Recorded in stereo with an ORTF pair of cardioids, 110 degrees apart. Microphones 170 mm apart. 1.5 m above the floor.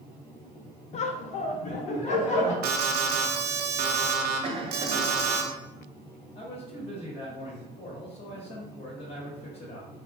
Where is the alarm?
70° right, 0.6 m.